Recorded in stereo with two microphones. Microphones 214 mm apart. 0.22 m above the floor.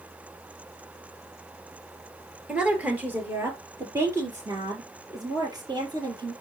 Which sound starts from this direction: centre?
A woman speaking, at 2.5 s.